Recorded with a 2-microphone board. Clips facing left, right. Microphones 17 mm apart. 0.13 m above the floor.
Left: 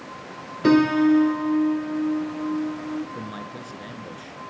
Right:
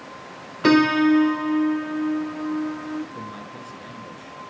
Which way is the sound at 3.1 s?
15° left (ahead or behind).